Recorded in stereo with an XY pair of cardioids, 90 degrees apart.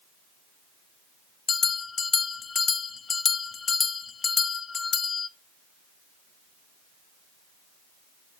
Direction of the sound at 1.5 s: 50° left.